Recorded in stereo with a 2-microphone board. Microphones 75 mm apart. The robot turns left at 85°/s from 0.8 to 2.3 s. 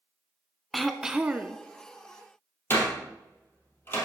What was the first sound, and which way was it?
Throat clearing, centre (ahead or behind).